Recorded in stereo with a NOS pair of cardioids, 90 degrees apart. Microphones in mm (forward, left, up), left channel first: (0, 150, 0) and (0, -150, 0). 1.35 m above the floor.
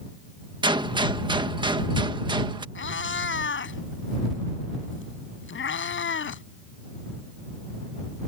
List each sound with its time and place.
0.6 s a gunshot: 15° right
2.8 s a cat meowing: 40° left